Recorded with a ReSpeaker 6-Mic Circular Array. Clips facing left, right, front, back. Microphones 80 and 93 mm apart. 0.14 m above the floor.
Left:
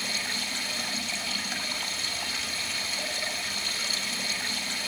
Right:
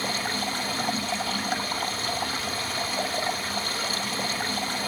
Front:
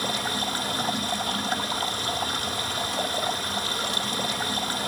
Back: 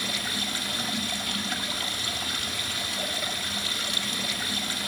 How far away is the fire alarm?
I don't hear a fire alarm.